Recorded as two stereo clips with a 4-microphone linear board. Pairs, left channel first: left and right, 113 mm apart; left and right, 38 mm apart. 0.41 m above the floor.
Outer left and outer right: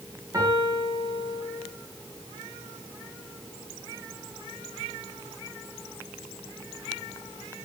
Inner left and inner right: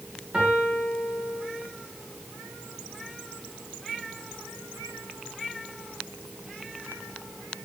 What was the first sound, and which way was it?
A piano, 30° right (ahead or behind).